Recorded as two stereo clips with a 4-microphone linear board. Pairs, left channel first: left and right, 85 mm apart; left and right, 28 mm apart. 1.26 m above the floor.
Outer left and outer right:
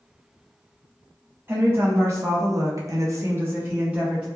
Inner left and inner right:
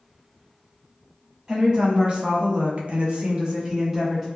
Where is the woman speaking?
25° right (ahead or behind), 1.0 m; by 4.3 s 10° right (ahead or behind), 0.9 m.